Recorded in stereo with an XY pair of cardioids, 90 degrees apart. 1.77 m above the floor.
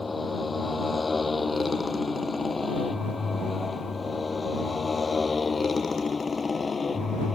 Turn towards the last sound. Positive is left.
turn(degrees=40)